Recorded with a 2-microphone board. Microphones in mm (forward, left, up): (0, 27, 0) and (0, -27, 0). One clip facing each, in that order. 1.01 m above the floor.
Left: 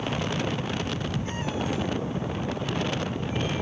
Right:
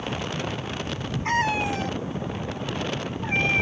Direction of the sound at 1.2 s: 80° right.